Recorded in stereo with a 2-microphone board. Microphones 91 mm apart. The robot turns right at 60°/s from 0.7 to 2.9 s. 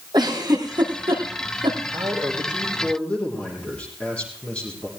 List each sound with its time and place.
0.1 s a giggle: 55° right (ahead or behind), 4.5 m
1.9 s a man speaking: 45° right, 7 m; by 4.9 s 15° left, 7 m